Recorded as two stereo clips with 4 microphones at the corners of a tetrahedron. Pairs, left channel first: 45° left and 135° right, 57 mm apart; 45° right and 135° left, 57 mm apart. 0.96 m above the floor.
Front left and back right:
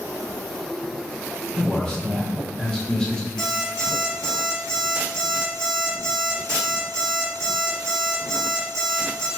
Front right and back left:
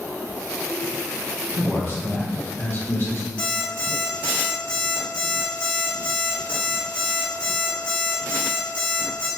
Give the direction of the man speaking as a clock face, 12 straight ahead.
1 o'clock.